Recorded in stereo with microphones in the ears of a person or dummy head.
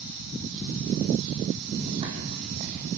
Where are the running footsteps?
25° right (ahead or behind), 4.5 m; by 2.9 s 35° right (ahead or behind), 4 m.